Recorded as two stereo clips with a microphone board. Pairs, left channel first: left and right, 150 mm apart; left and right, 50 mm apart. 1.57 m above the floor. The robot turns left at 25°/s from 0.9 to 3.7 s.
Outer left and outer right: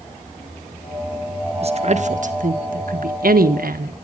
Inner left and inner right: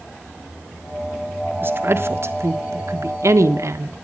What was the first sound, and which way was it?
A woman speaking, 40° right (ahead or behind).